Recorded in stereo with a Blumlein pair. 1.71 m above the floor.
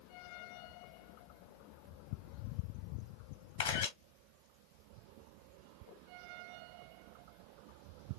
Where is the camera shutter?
65° left, 1.2 m.